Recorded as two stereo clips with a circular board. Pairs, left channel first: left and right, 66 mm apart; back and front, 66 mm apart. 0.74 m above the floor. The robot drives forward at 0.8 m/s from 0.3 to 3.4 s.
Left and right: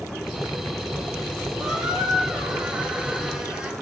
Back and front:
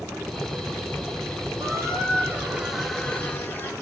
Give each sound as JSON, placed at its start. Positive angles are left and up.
{"t": 1.6, "sound": "a squeak", "azimuth_deg": -10, "distance_m": 1.2}